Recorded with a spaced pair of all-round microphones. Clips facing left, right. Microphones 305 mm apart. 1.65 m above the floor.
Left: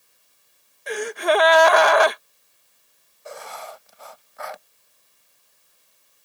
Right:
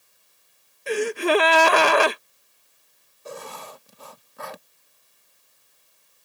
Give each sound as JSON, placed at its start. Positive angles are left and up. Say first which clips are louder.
{"t": 0.9, "sound": "a gasp", "louder": "right 1 dB", "side_deg": -35}
{"t": 3.2, "sound": "writing", "louder": "even", "side_deg": -40}